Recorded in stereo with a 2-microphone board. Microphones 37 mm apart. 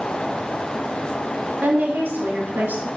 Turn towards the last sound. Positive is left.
turn(degrees=-65)  # may be behind; listen again after turning